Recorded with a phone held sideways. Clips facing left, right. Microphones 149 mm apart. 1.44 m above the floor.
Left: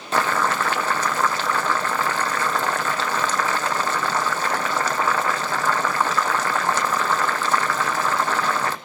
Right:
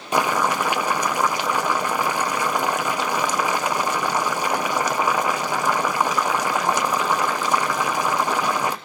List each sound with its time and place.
0.1 s boiling: 15° right (ahead or behind), 1.0 m